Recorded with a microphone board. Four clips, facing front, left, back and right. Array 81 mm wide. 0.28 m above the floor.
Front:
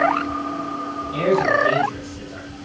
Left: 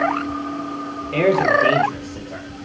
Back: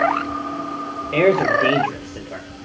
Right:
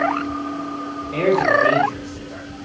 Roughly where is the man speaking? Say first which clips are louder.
Left 1 dB, back 2 dB; behind.